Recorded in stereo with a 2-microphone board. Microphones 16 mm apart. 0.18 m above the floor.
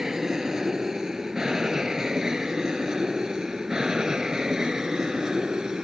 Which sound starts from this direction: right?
An aircraft, at 0.0 s.